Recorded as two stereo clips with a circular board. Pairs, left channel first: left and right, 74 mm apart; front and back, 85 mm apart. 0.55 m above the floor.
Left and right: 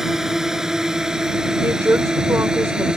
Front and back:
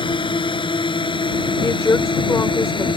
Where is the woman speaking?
45° right.